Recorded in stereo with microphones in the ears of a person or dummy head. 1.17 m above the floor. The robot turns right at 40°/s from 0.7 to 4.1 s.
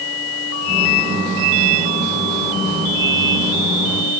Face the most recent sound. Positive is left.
No sound to turn to.